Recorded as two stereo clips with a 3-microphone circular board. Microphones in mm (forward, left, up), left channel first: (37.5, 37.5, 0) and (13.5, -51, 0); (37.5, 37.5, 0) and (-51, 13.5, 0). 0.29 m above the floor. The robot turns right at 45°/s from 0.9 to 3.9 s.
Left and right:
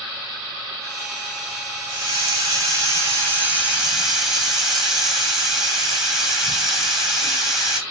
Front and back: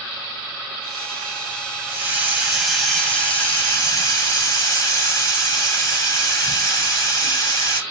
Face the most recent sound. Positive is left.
turn(degrees=-20)